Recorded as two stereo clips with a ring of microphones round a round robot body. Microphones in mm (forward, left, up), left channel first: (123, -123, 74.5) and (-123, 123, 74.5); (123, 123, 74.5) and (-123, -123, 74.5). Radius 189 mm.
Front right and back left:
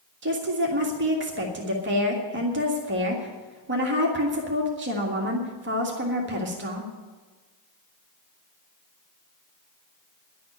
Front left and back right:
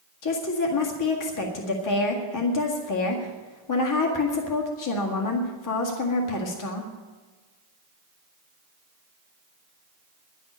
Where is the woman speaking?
75° left, 1.9 m.